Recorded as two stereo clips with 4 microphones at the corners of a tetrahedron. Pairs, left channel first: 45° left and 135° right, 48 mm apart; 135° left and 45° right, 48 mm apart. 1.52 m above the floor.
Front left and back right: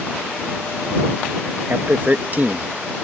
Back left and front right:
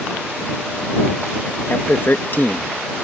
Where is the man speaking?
175° left.